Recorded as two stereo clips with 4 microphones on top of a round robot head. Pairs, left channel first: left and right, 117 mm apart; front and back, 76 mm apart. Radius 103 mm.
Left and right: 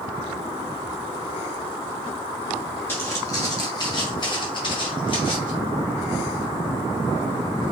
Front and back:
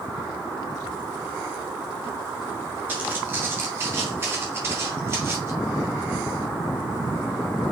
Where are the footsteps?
140° left, 1.6 m; by 5.5 s 130° left, 3 m.